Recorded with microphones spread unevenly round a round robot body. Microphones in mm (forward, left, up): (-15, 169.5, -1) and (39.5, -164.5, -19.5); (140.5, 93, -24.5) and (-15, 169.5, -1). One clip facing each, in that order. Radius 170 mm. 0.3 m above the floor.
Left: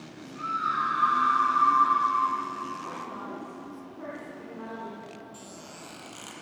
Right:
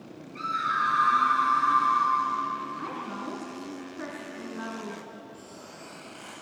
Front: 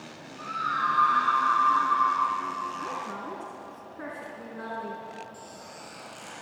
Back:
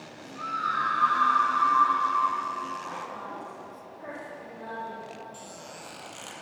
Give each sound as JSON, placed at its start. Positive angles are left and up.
{"t": 0.3, "sound": "a scream", "azimuth_deg": -120, "distance_m": 4.5}
{"t": 2.8, "sound": "a woman speaking", "azimuth_deg": -40, "distance_m": 3.5}
{"t": 5.3, "sound": "a squeak", "azimuth_deg": 145, "distance_m": 4.5}